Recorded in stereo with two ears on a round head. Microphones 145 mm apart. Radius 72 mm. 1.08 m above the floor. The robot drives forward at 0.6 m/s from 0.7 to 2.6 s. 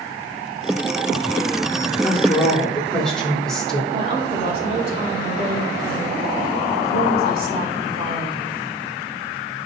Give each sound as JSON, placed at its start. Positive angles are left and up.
{"t": 2.0, "sound": "a woman speaking", "side_deg": 5, "distance_m": 3.5}
{"t": 3.9, "sound": "a woman speaking", "side_deg": -35, "distance_m": 3.5}